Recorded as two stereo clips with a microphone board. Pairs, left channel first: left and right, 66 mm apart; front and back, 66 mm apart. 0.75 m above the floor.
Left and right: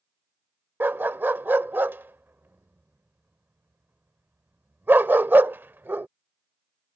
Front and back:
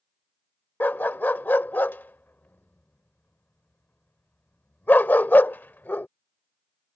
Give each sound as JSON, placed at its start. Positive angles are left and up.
{"t": 0.8, "sound": "a dog barking", "azimuth_deg": -50}